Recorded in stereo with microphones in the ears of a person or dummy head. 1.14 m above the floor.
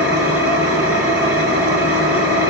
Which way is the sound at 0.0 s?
5° right (ahead or behind).